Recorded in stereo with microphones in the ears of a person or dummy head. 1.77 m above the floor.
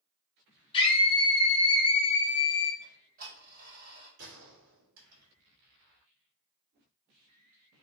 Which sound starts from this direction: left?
A scream, at 0.7 s.